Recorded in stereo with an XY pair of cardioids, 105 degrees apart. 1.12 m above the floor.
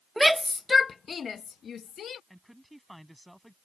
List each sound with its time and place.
0.2 s a shout: 5° right; by 2.2 s 60° left
2.3 s a man speaking: 5° right